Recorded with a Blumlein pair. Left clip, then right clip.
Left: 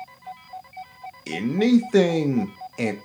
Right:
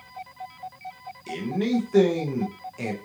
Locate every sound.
1.3 s a man speaking: 25° left, 0.5 m